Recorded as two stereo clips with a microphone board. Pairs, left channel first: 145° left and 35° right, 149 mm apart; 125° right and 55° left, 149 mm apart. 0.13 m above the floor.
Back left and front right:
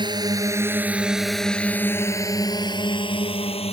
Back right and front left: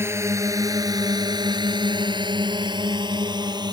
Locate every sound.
0.0 s a drone: 5° right; by 3.7 s 110° left